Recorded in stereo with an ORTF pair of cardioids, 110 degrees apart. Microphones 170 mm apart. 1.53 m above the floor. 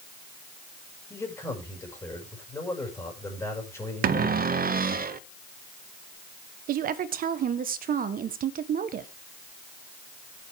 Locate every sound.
1.1 s a man speaking: 15° left, 6 m
4.0 s a cupboard door: 65° right, 0.6 m
6.7 s a woman speaking: 65° right, 1.4 m